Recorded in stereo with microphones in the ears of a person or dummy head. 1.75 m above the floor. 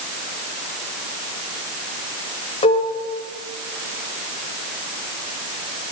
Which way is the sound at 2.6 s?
30° left (ahead or behind).